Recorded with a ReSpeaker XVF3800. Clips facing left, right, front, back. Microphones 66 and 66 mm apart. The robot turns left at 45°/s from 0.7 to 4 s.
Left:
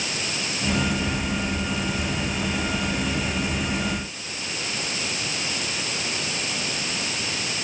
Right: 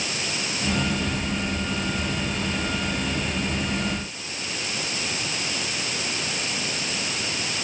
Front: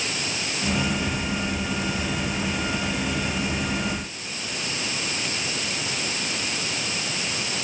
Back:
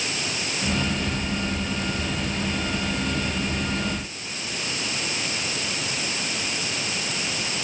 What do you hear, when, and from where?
Only background noise.